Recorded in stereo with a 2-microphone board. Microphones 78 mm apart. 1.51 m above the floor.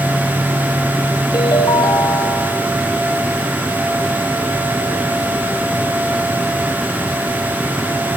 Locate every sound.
1.3 s a ringtone: 65° left (ahead or behind), 2.5 m